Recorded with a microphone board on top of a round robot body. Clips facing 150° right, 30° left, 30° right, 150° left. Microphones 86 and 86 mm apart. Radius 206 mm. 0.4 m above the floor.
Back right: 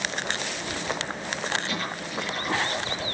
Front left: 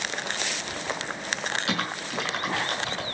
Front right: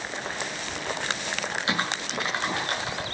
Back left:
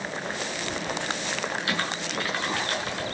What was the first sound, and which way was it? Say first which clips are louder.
Typing on a keyboard: front left 2 dB, front right 1 dB; 35° left.